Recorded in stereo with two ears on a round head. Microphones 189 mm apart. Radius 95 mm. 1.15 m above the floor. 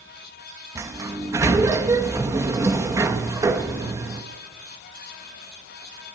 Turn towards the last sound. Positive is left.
turn(degrees=-15)  # may be behind; listen again after turning